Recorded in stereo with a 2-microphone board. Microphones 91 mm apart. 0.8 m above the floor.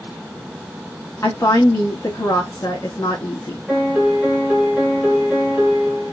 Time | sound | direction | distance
1.2 | a woman speaking | 35° left (ahead or behind) | 1.0 m
3.7 | a piano | 15° right (ahead or behind) | 1.2 m